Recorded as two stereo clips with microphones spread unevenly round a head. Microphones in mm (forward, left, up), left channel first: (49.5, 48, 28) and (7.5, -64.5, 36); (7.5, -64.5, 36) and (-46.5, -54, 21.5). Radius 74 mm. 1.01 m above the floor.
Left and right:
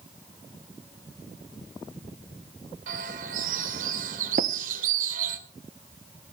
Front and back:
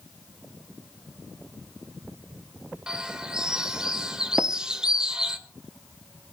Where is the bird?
115° right, 2 m.